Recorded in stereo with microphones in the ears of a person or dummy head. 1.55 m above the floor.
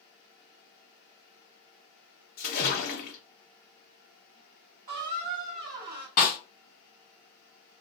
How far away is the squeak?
About 0.8 m.